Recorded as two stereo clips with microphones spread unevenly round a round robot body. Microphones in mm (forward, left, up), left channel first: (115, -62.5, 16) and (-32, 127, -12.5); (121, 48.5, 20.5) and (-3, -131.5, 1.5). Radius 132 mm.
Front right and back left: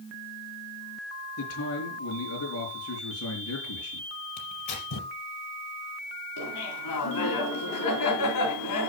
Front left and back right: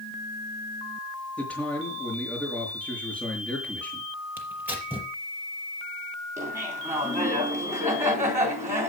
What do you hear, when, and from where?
1.4 s a man speaking: 30° right, 5 m
4.4 s tearing paper: 45° right, 5 m
6.4 s laughter: 50° right, 3.5 m